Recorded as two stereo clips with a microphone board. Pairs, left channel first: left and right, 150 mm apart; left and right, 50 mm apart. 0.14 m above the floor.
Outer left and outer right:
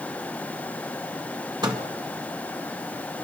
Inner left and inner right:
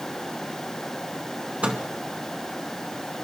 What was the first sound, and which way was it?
A microwave, 30° right (ahead or behind).